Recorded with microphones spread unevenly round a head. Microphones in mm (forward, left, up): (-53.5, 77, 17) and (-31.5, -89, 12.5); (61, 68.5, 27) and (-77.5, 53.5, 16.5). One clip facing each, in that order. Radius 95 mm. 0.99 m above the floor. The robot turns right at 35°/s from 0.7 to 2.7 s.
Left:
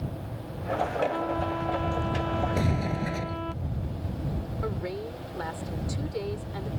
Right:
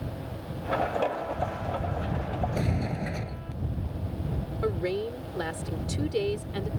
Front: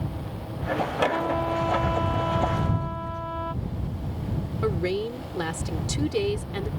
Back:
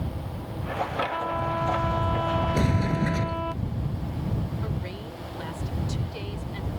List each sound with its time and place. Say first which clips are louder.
1.1 s a trumpet: left 3 dB, front 3 dB; 55° left; by 3.5 s 110° left
2.5 s a sliding door: left 2 dB, back 4 dB; straight behind; by 3.5 s 175° right
4.6 s a woman speaking: right 6 dB, front 9 dB; 15° right